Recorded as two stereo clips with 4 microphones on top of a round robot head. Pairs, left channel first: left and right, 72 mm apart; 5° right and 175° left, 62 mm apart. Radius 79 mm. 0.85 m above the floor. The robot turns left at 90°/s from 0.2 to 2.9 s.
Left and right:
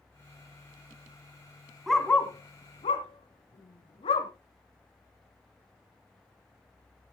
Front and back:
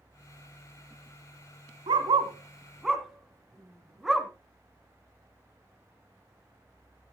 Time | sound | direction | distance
1.9 | a dog barking | straight behind | 2 m